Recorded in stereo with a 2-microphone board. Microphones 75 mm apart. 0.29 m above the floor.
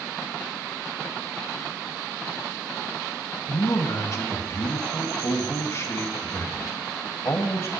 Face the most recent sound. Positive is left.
turn(degrees=45)  # may be behind; listen again after turning